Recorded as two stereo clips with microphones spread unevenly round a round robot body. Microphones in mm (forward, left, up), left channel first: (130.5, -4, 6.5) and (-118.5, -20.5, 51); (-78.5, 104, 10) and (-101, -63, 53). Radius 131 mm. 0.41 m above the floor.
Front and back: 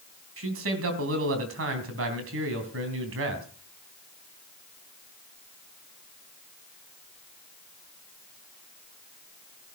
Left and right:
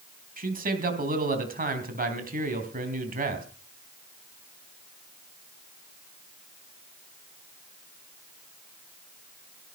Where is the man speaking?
135° right, 3.5 m.